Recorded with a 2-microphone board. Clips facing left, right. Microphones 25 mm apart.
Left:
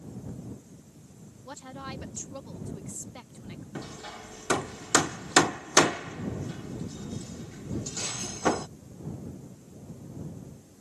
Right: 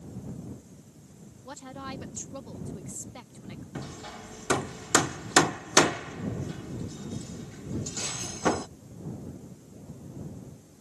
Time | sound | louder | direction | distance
1.4 | a woman speaking | right 1 dB | 5° left (ahead or behind) | ?
3.8 | hammering | even | 10° left (ahead or behind) | ?